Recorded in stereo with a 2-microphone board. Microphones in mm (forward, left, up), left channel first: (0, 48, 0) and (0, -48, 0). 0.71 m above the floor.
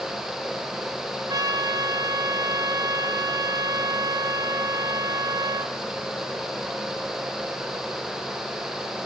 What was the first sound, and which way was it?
A trumpet, 40° right (ahead or behind).